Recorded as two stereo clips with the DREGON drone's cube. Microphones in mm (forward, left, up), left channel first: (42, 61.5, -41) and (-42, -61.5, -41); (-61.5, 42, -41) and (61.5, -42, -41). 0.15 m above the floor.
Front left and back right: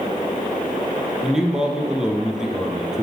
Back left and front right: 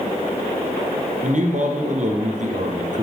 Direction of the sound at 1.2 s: 40° right.